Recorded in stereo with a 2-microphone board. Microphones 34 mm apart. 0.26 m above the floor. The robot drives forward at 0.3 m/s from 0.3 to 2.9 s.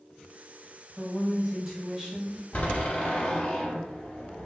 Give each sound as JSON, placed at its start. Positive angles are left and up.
{"t": 1.0, "sound": "a woman speaking", "side_deg": -10, "distance_m": 1.8}
{"t": 2.5, "sound": "a door slam", "side_deg": 50, "distance_m": 1.2}